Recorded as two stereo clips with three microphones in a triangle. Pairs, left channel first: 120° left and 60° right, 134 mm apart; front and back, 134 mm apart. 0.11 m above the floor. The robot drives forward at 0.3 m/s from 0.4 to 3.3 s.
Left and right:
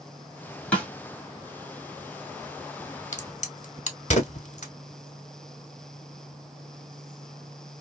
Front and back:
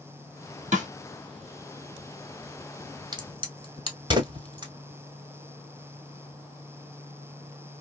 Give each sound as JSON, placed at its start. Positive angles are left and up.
{"t": 0.7, "sound": "a snare drum", "azimuth_deg": -160, "distance_m": 1.4}
{"t": 3.1, "sound": "a crack", "azimuth_deg": 130, "distance_m": 1.0}